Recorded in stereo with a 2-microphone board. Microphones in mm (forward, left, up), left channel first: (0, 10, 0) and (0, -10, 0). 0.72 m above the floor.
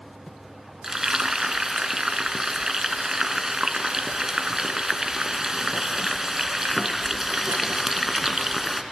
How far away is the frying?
About 1.9 m.